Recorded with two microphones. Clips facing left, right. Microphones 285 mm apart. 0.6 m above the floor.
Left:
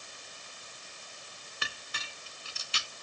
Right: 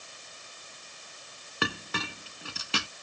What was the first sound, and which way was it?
A clink, 70° right (ahead or behind).